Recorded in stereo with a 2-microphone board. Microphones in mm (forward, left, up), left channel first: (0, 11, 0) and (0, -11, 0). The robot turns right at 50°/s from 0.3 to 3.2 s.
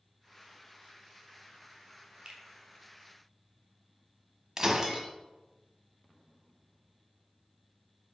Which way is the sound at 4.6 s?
25° right (ahead or behind).